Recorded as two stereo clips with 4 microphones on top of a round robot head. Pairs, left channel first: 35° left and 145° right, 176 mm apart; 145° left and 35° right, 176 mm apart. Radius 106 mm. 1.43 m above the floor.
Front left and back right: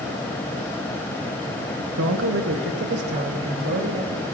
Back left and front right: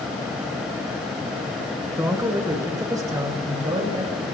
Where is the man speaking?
115° right, 1.3 m; by 4.2 s 105° right, 3 m.